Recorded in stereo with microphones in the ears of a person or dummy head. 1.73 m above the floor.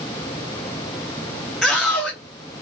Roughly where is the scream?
Centre.